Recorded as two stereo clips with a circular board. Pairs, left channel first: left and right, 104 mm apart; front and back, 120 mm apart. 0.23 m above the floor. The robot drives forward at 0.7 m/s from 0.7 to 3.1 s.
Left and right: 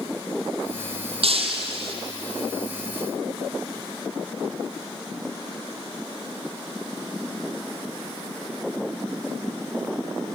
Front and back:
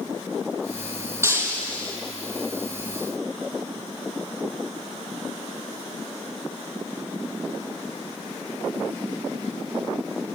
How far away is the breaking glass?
About 4 m.